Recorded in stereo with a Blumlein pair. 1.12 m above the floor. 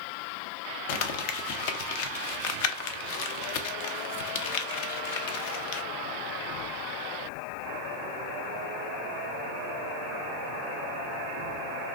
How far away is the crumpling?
About 0.5 m.